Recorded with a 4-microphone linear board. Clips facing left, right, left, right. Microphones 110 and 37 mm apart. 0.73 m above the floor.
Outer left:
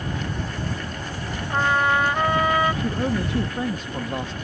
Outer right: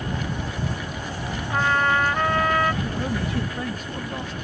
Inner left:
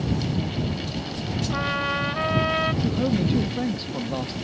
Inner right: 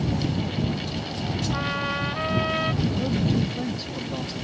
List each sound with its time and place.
1.5 s a trumpet: 10° left (ahead or behind)
2.8 s a man speaking: 25° left (ahead or behind)